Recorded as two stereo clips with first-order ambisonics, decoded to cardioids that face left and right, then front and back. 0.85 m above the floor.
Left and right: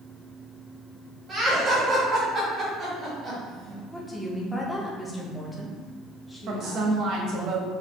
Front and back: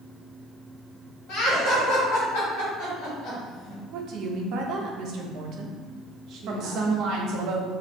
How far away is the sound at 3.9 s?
About 0.6 m.